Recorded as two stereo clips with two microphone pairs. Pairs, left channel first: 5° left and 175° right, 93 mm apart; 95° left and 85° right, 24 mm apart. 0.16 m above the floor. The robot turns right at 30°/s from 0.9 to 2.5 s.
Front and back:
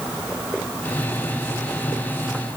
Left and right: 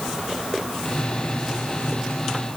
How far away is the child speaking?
I don't hear a child speaking.